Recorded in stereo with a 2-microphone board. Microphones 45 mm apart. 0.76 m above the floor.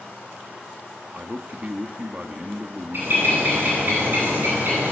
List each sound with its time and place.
1.1 s a man speaking: 30° right (ahead or behind), 1.2 m
2.9 s a bird: 55° right (ahead or behind), 9.5 m